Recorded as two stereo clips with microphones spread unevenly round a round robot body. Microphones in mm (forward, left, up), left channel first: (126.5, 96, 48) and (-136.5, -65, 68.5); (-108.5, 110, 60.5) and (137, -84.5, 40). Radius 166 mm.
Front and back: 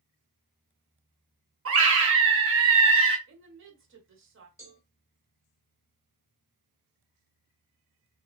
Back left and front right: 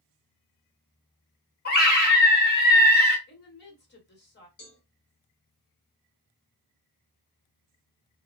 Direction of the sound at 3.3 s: 175° right.